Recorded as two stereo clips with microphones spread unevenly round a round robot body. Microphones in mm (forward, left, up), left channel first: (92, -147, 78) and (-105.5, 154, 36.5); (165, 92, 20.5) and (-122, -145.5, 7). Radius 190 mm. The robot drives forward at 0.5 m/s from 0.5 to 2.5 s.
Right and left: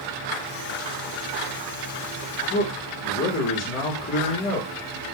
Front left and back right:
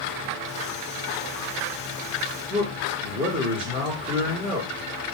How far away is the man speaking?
About 1.4 m.